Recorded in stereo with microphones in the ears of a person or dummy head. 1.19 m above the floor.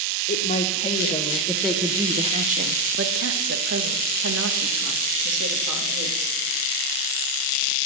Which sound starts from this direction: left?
A woman speaking, at 0.3 s.